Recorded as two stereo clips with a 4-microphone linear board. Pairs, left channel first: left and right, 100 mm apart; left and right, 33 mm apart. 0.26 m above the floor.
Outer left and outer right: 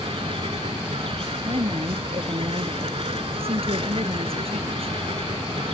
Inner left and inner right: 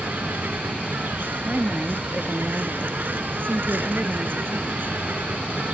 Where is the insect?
80° right.